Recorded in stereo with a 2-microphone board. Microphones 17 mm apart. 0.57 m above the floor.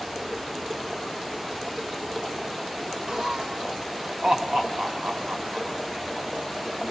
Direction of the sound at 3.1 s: 55° right (ahead or behind).